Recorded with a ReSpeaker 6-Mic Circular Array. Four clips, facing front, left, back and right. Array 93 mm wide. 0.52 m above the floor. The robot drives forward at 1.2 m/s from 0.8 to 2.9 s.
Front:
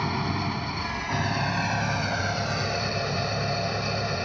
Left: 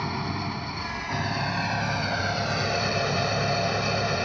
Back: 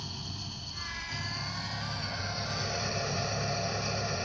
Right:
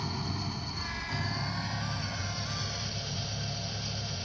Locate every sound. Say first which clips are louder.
0.0 s an engine running: left 7 dB, front 16 dB; 30° left; by 4.3 s 70° left